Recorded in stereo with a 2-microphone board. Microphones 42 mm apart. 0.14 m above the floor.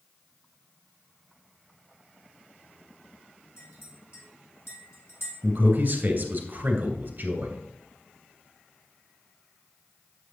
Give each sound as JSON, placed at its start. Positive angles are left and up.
{"t": 3.6, "sound": "a clink", "side_deg": 70, "distance_m": 4.5}
{"t": 5.4, "sound": "a man speaking", "side_deg": -45, "distance_m": 2.5}